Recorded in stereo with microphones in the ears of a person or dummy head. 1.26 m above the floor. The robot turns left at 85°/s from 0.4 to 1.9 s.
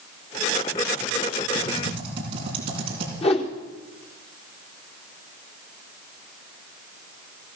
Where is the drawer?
I don't hear a drawer.